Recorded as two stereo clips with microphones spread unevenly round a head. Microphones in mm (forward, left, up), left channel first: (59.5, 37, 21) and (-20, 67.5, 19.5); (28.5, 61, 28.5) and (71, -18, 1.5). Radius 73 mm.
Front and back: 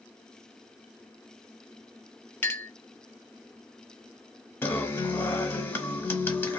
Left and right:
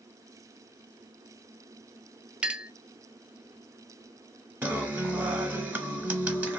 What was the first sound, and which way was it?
A clink, 30° left.